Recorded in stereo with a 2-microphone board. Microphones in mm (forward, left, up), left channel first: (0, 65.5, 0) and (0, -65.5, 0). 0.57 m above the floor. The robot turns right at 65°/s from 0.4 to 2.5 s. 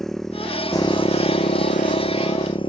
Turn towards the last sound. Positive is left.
turn(degrees=140)